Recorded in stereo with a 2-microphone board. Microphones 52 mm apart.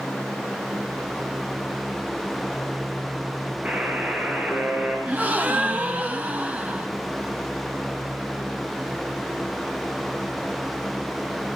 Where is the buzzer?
25° right (ahead or behind), 6.5 m.